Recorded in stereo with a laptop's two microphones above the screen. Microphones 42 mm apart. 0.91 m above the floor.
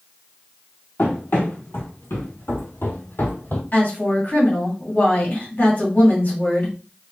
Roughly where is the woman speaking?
Left.